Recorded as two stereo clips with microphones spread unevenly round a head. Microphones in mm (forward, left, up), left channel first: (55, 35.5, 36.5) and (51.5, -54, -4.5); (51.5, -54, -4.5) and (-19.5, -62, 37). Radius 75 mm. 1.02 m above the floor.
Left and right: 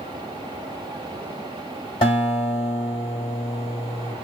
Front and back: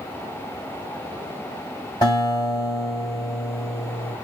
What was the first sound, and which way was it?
A guitar, 80° left.